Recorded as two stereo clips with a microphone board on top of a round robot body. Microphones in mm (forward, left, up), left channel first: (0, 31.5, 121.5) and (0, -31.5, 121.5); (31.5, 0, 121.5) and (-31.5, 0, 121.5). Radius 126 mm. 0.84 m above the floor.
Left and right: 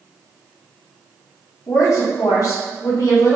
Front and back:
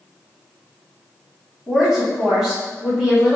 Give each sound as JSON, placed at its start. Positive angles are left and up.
{"t": 1.7, "sound": "a woman speaking", "azimuth_deg": 85, "distance_m": 1.5}